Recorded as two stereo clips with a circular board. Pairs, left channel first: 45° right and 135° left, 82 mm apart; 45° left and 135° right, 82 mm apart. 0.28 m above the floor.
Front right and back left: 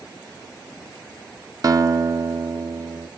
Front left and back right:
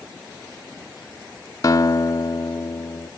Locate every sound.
1.6 s a guitar: 90° left, 1.0 m